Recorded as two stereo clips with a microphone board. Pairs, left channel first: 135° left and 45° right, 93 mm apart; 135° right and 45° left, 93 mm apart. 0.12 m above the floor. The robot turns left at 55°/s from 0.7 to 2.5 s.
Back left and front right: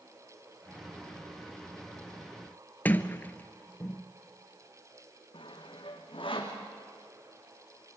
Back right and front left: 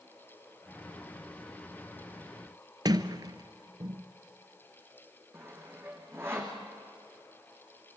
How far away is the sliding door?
About 0.9 m.